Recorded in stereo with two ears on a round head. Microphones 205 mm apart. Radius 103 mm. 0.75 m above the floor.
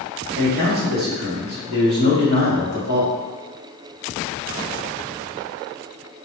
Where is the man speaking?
45° right (ahead or behind), 1.3 m.